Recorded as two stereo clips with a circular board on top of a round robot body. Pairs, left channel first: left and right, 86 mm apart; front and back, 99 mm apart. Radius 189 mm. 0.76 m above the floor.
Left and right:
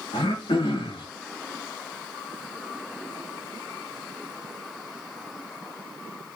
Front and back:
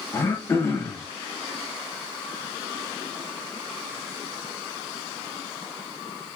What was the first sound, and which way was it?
Throat clearing, 65° left.